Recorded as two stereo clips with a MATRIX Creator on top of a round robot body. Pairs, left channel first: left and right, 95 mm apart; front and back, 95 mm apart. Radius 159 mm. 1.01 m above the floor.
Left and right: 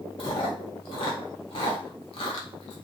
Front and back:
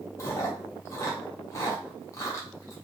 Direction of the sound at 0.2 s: 60° left.